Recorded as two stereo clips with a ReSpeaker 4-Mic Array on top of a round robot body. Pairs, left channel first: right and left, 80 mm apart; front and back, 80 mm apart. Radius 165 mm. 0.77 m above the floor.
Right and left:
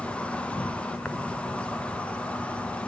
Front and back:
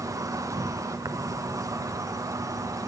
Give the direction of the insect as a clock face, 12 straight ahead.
5 o'clock.